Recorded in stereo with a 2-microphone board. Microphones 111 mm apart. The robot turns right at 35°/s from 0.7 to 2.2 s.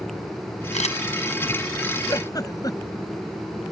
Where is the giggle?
30° left (ahead or behind); by 3.1 s 35° left (ahead or behind).